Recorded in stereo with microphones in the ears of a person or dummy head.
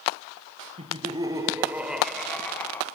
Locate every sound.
0.8 s laughter: 35° right (ahead or behind), 1.2 m; by 2.9 s 10° left (ahead or behind), 1.5 m